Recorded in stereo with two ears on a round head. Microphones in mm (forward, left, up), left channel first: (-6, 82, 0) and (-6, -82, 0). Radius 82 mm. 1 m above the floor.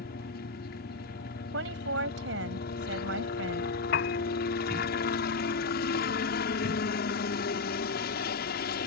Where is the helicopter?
60° left (ahead or behind).